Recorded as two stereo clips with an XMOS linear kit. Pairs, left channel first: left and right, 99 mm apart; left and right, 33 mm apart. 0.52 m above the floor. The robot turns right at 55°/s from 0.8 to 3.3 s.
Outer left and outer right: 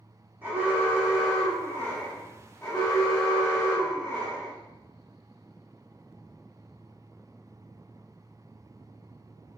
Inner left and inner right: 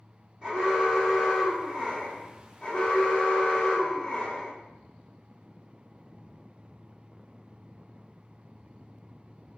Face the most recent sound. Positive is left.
turn(degrees=105)